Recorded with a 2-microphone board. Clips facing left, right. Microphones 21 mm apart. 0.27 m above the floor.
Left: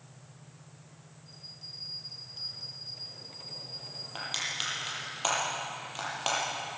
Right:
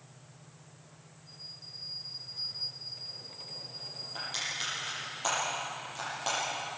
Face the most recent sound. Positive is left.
turn(degrees=40)  # may be behind; listen again after turning